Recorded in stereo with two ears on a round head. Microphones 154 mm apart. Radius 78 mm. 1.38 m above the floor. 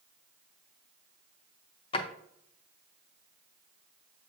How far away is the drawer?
About 0.5 m.